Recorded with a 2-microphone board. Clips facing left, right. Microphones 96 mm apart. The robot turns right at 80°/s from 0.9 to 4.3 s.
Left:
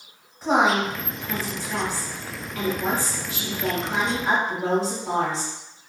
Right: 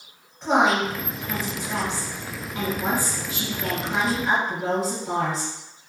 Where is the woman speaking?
170° left, 1.2 m; by 5.5 s 80° left, 1.2 m.